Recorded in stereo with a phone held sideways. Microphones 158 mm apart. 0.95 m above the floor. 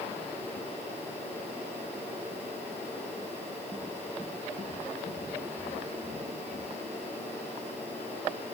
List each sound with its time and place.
Only background noise.